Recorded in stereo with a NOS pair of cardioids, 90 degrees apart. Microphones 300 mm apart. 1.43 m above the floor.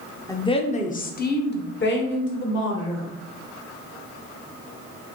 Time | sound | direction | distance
0.3 | a woman speaking | 10° left | 0.7 m